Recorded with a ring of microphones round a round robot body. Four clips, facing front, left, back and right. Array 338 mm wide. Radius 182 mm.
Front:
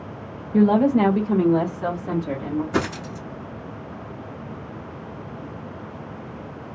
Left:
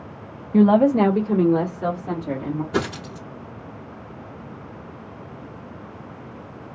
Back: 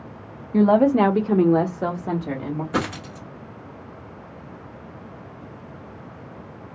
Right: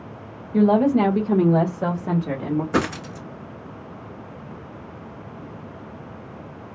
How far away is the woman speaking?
About 1.0 m.